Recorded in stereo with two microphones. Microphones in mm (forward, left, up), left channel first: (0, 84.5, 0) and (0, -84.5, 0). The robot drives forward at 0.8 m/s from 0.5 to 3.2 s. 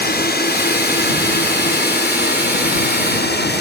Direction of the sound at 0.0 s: 65° left (ahead or behind).